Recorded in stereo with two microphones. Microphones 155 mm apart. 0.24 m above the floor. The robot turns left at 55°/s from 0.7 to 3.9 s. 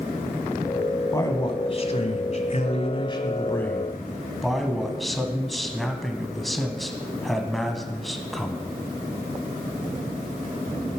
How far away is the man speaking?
About 1.3 m.